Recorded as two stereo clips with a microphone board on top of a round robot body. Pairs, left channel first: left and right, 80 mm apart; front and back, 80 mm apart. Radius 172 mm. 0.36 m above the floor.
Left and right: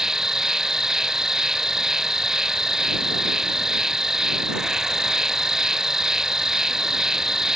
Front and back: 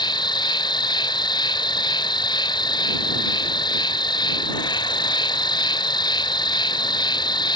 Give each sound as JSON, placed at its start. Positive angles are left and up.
{"t": 0.0, "sound": "an insect", "azimuth_deg": -5}